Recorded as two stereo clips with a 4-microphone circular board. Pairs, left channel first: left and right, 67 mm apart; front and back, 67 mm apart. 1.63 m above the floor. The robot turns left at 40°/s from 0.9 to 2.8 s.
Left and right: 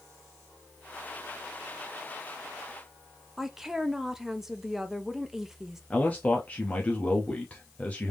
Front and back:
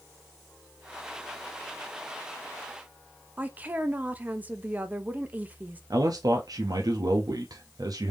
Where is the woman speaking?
165° right, 0.5 m.